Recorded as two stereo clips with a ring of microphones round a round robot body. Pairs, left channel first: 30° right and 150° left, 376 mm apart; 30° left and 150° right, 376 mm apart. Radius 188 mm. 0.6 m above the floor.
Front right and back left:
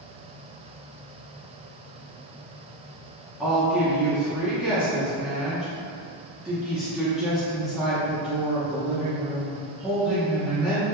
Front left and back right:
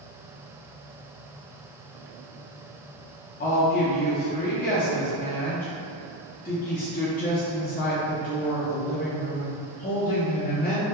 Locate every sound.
3.4 s a woman speaking: 65° left, 0.5 m